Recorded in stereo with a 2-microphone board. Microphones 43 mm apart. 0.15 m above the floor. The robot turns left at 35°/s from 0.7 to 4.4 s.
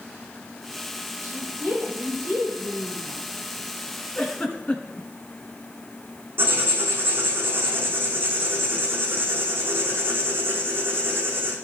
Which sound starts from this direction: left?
A giggle, at 4.2 s.